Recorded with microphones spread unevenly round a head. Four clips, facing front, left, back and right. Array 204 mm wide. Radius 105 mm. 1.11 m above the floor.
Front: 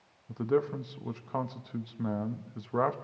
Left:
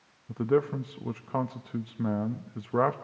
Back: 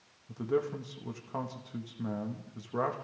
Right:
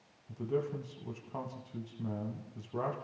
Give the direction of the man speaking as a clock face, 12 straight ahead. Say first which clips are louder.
Left 9 dB, front 3 dB; 9 o'clock.